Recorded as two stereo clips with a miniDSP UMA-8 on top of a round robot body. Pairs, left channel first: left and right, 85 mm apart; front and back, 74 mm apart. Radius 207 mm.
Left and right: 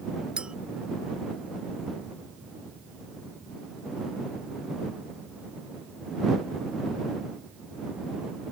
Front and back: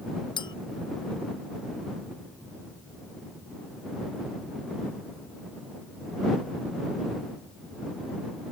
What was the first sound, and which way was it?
A clink, 10° right.